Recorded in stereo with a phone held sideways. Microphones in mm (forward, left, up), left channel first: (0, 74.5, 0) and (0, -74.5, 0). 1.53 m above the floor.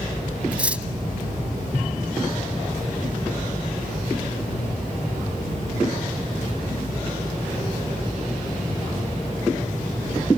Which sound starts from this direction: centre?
Cutlery clinking, at 0.5 s.